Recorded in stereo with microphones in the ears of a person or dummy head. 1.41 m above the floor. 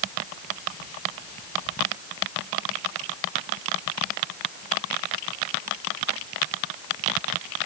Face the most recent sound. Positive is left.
No sound to turn to.